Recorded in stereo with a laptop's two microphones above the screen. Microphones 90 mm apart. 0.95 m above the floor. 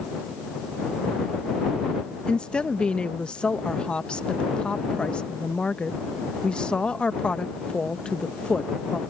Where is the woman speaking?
10° left (ahead or behind).